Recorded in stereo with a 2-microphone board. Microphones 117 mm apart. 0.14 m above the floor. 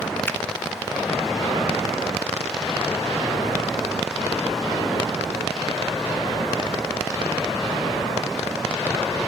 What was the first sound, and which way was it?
A finger snap, 20° left (ahead or behind).